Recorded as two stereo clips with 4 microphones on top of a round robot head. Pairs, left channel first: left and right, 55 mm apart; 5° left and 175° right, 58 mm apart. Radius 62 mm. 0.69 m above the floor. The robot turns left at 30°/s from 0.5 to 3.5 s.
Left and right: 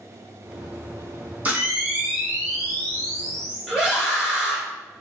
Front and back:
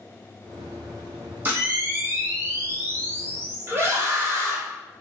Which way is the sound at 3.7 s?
160° right.